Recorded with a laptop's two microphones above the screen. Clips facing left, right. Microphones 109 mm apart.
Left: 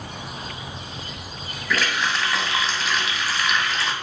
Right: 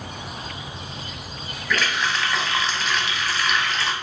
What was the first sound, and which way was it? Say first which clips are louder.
A running tap: even; 5° left (ahead or behind).